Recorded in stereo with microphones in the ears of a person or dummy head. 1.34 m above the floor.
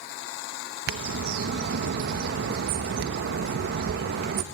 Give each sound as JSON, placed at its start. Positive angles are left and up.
{"t": 0.9, "sound": "a bird", "side_deg": -60, "distance_m": 0.9}